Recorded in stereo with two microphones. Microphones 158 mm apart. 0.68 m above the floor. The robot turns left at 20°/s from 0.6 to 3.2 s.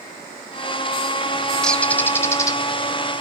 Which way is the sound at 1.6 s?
5° left (ahead or behind).